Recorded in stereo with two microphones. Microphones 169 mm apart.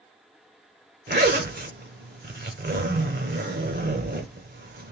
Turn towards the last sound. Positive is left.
turn(degrees=-70)  # may be behind; listen again after turning